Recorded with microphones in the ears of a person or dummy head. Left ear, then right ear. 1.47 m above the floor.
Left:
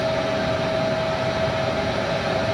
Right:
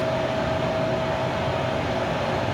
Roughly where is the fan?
Left.